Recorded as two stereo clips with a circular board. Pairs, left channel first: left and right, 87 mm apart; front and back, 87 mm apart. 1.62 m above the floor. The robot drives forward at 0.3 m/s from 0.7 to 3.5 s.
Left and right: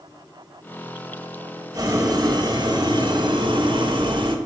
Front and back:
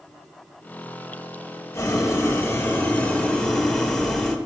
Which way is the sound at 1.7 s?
50° right.